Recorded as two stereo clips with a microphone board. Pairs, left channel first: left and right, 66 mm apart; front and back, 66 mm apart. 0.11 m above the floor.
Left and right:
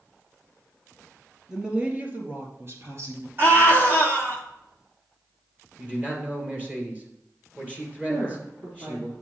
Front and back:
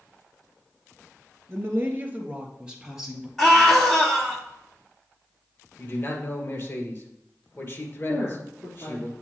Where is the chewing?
I don't hear chewing.